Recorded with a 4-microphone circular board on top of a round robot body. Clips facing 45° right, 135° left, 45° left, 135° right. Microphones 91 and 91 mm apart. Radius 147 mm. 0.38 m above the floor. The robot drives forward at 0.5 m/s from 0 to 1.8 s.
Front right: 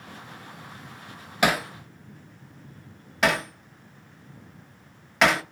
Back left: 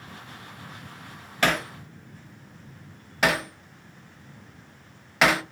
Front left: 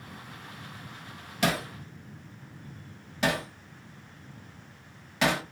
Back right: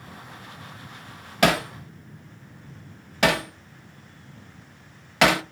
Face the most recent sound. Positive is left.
turn(degrees=-135)